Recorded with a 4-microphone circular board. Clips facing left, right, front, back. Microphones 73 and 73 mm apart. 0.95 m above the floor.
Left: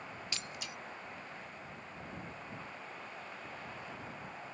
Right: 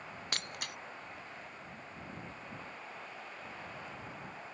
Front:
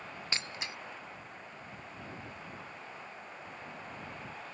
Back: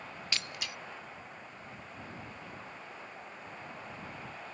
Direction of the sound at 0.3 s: 60° right.